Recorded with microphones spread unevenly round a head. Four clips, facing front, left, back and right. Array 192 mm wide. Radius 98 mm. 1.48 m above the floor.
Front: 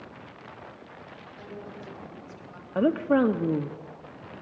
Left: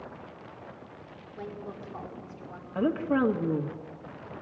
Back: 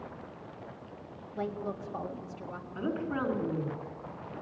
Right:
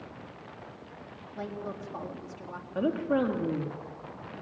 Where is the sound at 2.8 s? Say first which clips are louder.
Left 1 dB, front 11 dB; 10° left, 2 m.